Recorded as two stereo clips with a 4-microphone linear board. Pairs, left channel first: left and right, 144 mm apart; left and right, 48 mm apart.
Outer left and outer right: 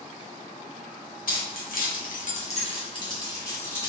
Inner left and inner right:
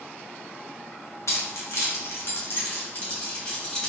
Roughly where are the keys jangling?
Left.